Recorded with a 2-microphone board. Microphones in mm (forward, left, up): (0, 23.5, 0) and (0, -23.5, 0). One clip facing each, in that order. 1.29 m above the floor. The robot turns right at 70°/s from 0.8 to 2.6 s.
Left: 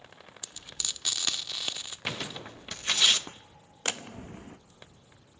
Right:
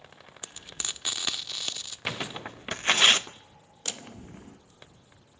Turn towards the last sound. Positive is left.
turn(degrees=45)  # may be behind; listen again after turning